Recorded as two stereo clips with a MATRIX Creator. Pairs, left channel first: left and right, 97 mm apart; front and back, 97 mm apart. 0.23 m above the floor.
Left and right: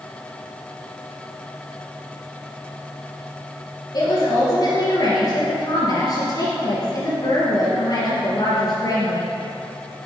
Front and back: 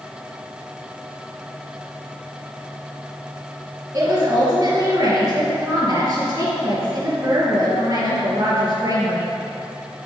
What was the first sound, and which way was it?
A woman speaking, 125° left.